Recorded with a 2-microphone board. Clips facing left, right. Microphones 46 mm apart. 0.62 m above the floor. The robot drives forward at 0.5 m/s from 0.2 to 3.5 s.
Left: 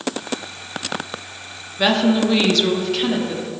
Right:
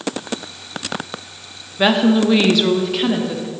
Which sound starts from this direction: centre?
A woman speaking, at 1.8 s.